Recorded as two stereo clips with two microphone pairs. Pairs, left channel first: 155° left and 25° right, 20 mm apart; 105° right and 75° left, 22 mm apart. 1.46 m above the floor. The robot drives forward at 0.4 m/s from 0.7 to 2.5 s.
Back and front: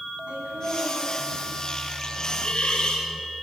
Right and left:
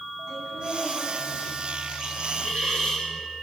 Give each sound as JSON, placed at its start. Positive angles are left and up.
{"t": 0.3, "sound": "laughter", "azimuth_deg": -40, "distance_m": 9.5}
{"t": 2.1, "sound": "a hiss", "azimuth_deg": -165, "distance_m": 7.0}